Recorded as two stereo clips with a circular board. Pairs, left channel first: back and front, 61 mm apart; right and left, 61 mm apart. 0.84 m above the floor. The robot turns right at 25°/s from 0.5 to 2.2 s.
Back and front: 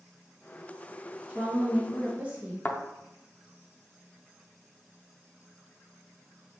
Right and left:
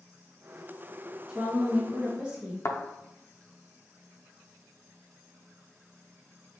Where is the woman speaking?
15° left, 0.7 m; by 2.5 s 40° left, 0.7 m.